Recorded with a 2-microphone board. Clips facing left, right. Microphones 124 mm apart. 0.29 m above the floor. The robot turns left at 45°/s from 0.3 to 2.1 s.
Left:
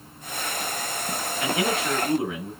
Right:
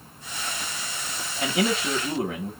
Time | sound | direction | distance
1.4 | a man speaking | 35° right | 1.3 m